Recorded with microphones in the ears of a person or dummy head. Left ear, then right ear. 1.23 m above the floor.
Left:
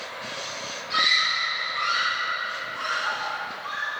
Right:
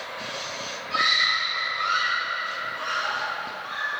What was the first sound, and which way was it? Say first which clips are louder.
A scream: even; 70° left (ahead or behind).